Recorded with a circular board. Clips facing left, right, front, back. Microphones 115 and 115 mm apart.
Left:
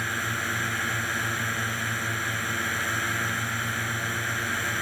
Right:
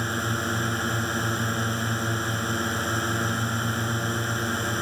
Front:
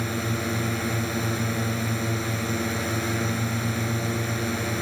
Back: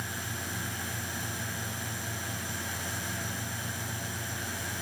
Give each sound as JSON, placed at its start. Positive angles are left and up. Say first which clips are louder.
{"t": 0.0, "sound": "a drone", "louder": "right 3 dB, front 11 dB", "azimuth_deg": -25}